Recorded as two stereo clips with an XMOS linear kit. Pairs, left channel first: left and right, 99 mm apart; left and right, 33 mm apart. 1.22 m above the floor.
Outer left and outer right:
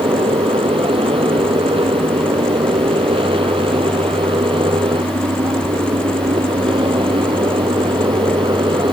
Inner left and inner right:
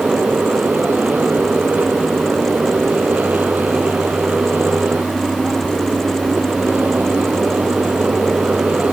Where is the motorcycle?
70° right (ahead or behind); by 8.9 s 55° right (ahead or behind).